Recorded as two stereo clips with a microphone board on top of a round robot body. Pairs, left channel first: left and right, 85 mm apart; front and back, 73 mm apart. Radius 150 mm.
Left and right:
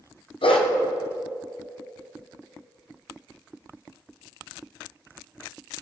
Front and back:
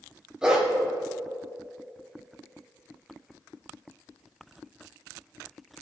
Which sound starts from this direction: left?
A dog barking, at 0.4 s.